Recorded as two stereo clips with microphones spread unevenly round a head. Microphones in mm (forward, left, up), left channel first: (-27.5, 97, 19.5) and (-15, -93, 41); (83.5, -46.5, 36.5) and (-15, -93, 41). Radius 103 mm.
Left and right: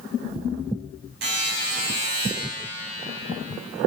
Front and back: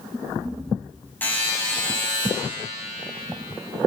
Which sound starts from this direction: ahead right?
A buzzer, at 1.2 s.